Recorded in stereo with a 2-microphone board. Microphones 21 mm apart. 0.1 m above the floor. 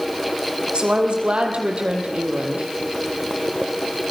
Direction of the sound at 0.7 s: 60° right (ahead or behind).